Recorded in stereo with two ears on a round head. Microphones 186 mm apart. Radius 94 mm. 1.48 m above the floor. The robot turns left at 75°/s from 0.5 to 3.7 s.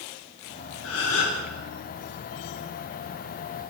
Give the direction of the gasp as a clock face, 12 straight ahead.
8 o'clock.